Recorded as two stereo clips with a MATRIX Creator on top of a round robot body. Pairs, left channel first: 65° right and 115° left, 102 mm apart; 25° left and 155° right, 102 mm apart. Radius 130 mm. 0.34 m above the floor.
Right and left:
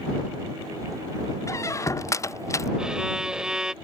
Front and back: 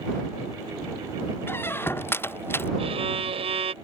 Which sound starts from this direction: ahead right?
A squeak, at 1.5 s.